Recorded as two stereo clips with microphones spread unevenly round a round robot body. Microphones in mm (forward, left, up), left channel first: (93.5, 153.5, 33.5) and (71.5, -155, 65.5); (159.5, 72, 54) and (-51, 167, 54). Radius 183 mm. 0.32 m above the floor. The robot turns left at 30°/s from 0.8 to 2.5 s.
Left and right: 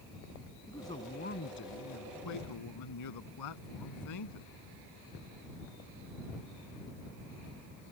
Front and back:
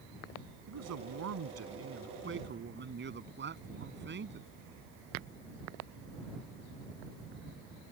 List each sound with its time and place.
0.7 s a man speaking: 165° left; by 4.5 s 115° left